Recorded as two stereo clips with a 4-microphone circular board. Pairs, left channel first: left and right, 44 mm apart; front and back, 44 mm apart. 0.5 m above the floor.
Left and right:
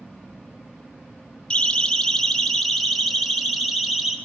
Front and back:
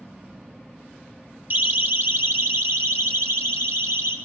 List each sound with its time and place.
1.5 s a siren: 150° left, 2 m; by 4.2 s 170° right, 4 m